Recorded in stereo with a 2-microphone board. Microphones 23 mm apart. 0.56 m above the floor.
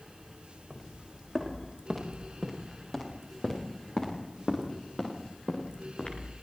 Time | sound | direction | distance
0.7 | footsteps | 5° left (ahead or behind) | 8 m